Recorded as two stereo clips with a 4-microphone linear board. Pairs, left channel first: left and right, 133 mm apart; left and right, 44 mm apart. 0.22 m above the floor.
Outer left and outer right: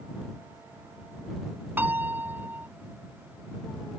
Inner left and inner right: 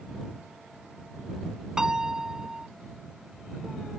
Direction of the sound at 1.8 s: 15° right (ahead or behind).